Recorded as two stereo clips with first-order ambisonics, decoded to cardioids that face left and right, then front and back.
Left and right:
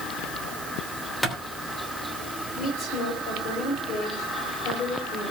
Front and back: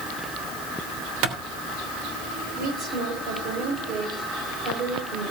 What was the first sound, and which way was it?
A clap, 170° left.